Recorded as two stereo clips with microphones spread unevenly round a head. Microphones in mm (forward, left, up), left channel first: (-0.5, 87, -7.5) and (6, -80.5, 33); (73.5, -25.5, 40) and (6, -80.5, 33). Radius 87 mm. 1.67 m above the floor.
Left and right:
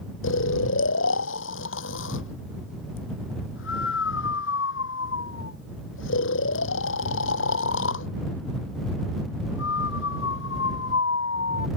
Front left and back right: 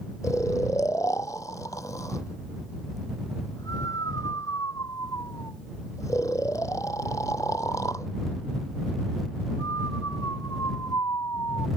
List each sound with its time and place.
0.2 s snoring: 110° left